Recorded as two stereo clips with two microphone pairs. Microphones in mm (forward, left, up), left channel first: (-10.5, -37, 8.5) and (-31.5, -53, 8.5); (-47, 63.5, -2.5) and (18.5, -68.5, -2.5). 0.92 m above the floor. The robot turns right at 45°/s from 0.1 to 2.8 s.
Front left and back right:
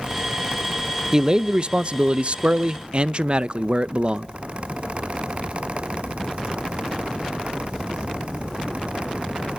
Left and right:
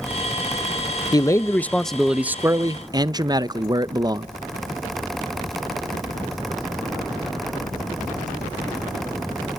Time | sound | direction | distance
1.1 | a man speaking | 170° left | 0.5 m